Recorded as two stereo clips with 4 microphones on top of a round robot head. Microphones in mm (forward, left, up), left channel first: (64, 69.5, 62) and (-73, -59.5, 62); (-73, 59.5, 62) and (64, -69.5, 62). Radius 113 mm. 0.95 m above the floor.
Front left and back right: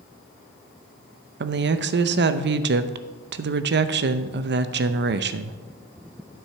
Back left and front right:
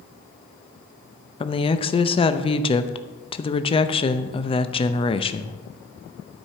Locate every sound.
1.4 s a woman speaking: 160° right, 0.7 m